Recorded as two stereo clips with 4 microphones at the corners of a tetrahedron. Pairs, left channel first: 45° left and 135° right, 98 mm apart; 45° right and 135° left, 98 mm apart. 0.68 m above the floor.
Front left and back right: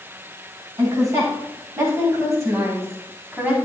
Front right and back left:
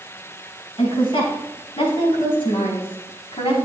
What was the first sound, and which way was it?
A woman speaking, 80° right.